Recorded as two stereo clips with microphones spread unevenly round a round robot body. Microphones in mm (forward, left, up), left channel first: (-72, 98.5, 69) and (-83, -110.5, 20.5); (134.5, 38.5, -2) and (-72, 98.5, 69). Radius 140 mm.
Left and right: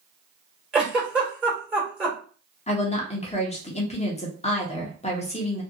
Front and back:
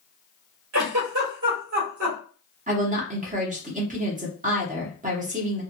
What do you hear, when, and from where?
0.7 s a giggle: 170° right, 1.6 m
2.7 s a woman speaking: 120° left, 1.1 m